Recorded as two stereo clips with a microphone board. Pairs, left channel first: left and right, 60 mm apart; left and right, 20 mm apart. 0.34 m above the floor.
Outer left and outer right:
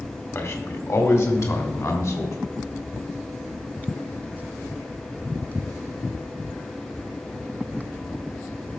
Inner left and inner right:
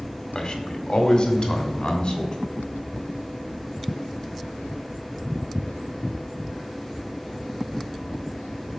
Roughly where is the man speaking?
Left.